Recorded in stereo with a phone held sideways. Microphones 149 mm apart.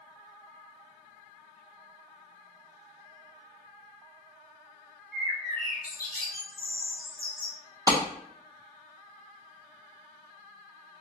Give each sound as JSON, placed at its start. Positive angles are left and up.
{"t": 5.1, "sound": "a bird", "side_deg": 80, "distance_m": 1.0}
{"t": 7.9, "sound": "a clap", "side_deg": -25, "distance_m": 1.3}